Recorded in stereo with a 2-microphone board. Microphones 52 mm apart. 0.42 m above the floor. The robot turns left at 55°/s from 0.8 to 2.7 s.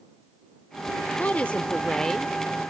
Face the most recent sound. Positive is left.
turn(degrees=-15)